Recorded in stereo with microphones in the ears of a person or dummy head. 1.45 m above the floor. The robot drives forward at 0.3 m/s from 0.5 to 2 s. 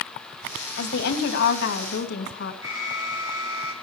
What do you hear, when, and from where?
0.8 s a woman speaking: 75° left (ahead or behind), 2.5 m; by 2.5 s 65° left (ahead or behind), 2.5 m
2.6 s an alarm: 15° right (ahead or behind), 7 m